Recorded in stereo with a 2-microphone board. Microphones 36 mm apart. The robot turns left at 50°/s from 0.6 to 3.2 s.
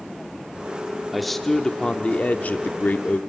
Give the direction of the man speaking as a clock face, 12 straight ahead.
6 o'clock.